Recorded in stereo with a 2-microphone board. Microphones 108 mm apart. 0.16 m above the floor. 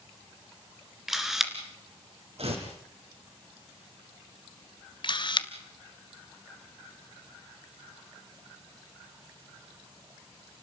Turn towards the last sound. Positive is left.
turn(degrees=50)  # may be behind; listen again after turning